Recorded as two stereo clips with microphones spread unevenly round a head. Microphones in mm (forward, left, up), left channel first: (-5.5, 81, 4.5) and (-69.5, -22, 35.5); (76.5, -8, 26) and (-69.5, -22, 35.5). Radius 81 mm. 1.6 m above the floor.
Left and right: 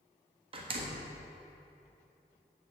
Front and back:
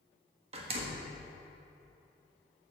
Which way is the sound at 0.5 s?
130° right.